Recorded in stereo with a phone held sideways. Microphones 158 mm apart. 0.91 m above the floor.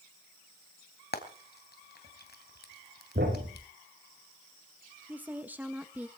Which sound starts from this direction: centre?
A woman speaking, at 5.1 s.